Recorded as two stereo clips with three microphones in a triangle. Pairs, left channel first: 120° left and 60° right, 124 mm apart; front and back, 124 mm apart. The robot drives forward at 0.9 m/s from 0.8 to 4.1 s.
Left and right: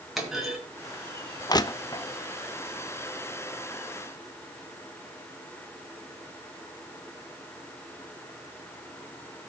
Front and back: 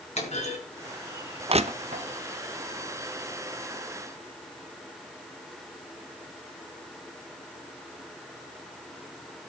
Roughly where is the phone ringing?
No phone ringing in this recording.